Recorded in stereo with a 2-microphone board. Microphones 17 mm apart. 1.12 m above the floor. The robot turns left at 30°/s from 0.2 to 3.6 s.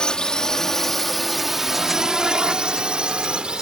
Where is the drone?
55° left (ahead or behind); by 3.6 s 65° right (ahead or behind).